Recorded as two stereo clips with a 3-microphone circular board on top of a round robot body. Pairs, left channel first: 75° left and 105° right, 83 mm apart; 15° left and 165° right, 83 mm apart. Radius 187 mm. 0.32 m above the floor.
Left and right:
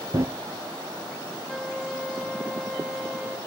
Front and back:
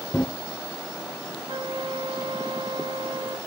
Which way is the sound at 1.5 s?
165° left.